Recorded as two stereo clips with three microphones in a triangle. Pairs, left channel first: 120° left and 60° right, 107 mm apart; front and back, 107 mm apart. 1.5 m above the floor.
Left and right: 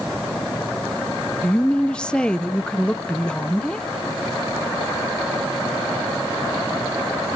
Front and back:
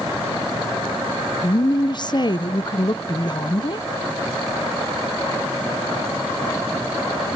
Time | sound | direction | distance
1.4 | a woman speaking | 40° left | 0.6 m